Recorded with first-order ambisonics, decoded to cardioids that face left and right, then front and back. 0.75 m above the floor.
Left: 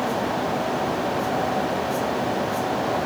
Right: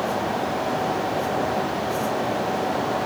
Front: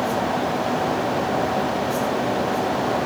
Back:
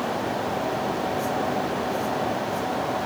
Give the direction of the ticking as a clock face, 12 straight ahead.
No ticking in this recording.